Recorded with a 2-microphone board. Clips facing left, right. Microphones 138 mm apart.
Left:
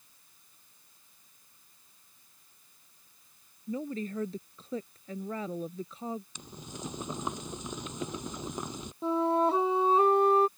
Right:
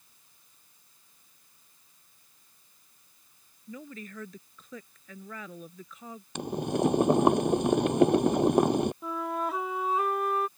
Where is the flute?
30° left (ahead or behind).